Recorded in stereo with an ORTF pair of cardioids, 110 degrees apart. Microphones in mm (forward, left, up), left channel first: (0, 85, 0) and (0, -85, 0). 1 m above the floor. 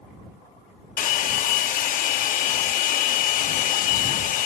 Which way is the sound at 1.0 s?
50° left.